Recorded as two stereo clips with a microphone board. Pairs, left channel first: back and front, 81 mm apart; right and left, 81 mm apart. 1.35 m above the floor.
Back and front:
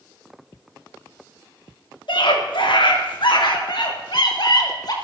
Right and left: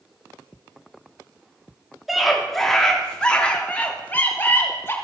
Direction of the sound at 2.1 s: Straight behind.